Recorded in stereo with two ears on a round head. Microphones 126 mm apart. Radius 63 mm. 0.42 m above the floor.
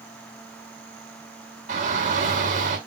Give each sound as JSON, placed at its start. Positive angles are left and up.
{"t": 1.7, "sound": "a shout", "side_deg": -60, "distance_m": 4.5}